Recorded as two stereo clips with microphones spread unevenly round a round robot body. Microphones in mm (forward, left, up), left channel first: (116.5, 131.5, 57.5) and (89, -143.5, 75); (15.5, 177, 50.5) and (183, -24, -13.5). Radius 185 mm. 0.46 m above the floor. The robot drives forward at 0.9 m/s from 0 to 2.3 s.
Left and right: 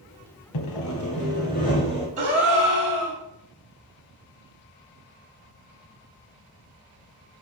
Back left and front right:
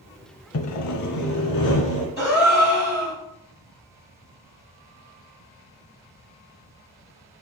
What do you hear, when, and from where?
0.5 s sawing: 105° left, 0.6 m; by 2.1 s 160° left, 1.6 m
2.2 s a gasp: 165° right, 1.8 m